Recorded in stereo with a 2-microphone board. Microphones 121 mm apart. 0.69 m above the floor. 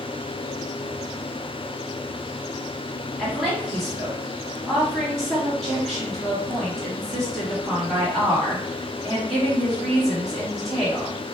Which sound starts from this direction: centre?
A woman speaking, at 3.2 s.